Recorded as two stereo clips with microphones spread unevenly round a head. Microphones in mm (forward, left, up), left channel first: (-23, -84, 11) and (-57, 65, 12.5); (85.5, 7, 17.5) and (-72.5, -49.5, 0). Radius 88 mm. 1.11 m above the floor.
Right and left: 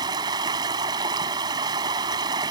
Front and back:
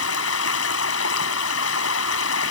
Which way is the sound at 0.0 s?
35° left.